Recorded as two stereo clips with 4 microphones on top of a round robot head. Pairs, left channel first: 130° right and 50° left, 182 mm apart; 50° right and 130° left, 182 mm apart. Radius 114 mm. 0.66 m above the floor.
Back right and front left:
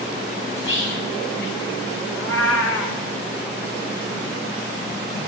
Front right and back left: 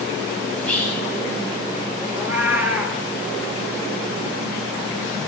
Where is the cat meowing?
150° right, 1.3 m.